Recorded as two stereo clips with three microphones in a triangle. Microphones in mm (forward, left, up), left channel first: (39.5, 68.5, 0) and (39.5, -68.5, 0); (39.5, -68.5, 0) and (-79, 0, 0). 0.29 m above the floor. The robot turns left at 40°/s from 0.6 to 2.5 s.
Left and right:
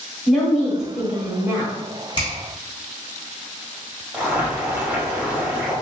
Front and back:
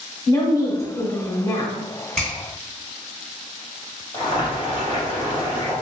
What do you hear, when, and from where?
0.3 s a woman speaking: straight ahead, 1.2 m; by 1.7 s 45° right, 1.2 m
2.2 s a finger snap: 55° left, 1.6 m; by 2.3 s 50° left, 1.6 m
4.1 s boiling: 25° right, 1.2 m